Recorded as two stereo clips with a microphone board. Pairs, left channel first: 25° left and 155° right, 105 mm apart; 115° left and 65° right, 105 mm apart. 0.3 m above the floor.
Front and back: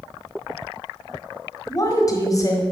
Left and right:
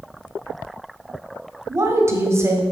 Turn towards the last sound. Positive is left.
turn(degrees=-15)